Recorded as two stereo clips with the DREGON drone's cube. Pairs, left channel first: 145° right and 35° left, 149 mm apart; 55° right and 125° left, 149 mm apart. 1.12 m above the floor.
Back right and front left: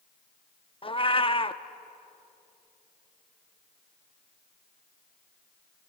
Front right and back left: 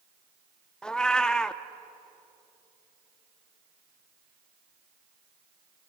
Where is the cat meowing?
135° right, 0.7 m.